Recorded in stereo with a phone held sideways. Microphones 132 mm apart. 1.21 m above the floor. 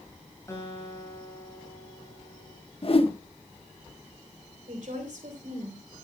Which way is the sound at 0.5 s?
25° left (ahead or behind).